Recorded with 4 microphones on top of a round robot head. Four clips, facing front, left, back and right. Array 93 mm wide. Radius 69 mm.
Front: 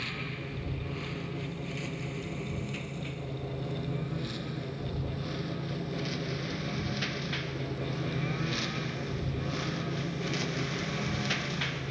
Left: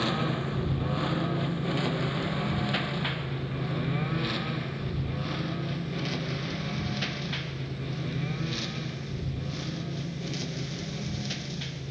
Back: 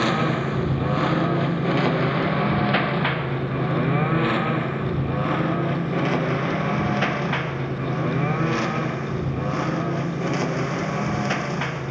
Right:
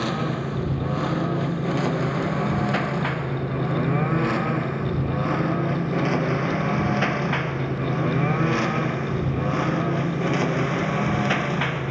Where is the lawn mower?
165° right; by 11.9 s 125° right.